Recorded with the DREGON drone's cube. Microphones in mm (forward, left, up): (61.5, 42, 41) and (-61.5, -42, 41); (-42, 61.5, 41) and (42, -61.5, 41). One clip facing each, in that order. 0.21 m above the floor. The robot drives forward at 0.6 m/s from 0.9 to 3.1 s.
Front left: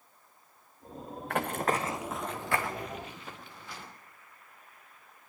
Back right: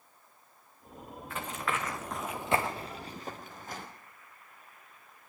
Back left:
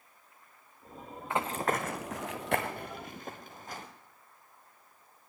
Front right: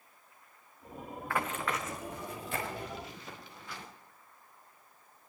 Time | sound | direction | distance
1.3 | running footsteps | 55° left | 1.4 m